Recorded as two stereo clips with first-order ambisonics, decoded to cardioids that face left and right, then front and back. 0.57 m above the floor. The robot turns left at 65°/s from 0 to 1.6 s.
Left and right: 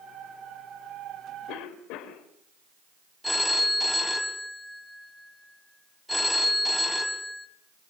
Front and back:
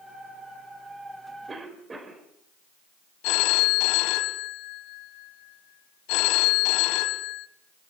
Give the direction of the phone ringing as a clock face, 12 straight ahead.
12 o'clock.